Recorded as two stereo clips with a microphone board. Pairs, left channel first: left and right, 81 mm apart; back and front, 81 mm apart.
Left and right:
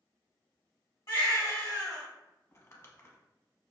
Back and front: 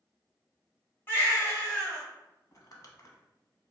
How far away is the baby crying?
About 1.3 m.